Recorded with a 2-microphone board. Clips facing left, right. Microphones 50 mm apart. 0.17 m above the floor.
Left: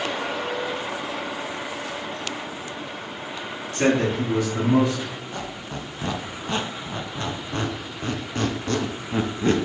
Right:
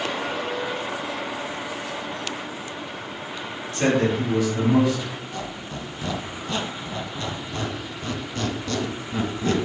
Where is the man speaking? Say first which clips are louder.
Even; 40° left (ahead or behind), 1.7 m.